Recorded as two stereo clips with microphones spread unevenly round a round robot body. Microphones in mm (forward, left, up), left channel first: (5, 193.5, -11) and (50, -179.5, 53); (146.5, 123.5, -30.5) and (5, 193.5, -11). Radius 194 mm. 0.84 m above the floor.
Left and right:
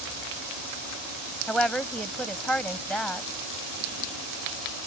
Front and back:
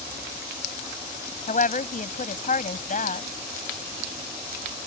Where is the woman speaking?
10° left.